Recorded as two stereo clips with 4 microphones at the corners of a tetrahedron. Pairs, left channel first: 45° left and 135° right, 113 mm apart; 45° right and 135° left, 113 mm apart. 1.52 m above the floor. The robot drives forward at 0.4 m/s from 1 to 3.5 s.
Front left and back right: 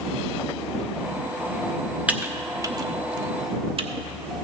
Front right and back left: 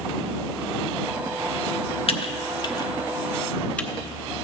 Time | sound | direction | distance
2.1 | typing on a keyboard | 60° right | 0.7 m